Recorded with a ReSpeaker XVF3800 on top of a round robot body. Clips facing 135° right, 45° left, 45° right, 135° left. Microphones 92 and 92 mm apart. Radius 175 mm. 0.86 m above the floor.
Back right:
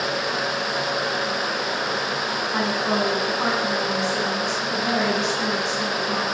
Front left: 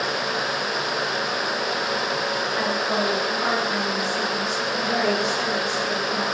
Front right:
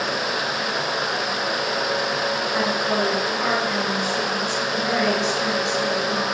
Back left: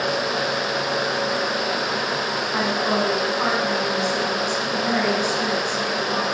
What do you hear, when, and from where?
2.5 s a woman speaking: 165° right, 7.5 m; by 6.2 s 140° right, 7 m